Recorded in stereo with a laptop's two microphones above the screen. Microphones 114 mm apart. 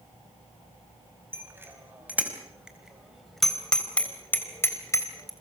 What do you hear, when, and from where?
1.3 s a bicycle bell: 20° right (ahead or behind), 5 m; by 5.3 s 35° left (ahead or behind), 3.5 m